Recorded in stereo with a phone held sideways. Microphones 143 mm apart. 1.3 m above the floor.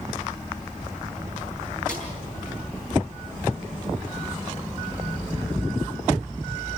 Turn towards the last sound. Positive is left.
turn(degrees=70)  # may be behind; listen again after turning